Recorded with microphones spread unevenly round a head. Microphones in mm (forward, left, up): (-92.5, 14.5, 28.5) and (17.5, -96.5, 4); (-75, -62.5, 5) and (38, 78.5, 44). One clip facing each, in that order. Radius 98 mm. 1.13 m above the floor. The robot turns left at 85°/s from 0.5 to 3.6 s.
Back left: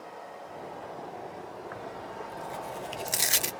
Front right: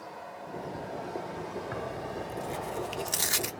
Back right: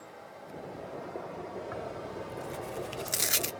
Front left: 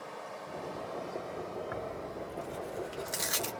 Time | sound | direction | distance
0.0 | running water | 45° left | 1.4 m
1.7 | tearing paper | 20° right | 0.5 m